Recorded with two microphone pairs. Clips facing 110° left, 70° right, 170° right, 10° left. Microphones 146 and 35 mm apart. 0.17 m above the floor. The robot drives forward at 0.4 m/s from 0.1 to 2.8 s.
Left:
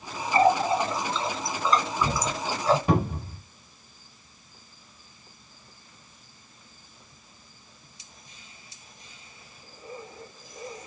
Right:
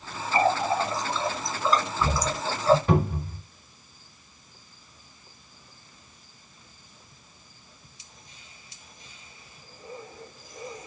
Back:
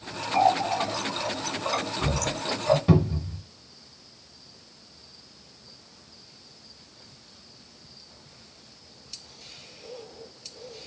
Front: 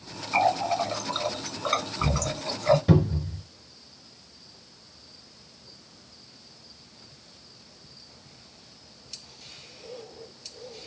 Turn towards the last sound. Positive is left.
turn(degrees=160)